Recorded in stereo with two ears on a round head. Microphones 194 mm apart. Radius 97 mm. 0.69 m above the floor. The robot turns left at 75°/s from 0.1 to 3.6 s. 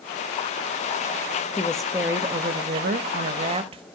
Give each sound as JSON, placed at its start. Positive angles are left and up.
{"t": 1.6, "sound": "a woman speaking", "azimuth_deg": 20, "distance_m": 0.7}